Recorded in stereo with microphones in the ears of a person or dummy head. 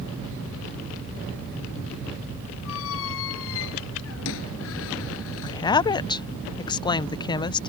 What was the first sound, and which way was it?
A squeak, 75° left (ahead or behind).